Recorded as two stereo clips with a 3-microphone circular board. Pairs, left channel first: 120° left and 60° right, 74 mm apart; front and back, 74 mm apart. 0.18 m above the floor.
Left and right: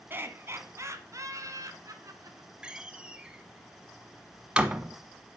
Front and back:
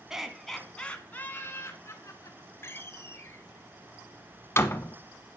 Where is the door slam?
5° left, 0.8 m.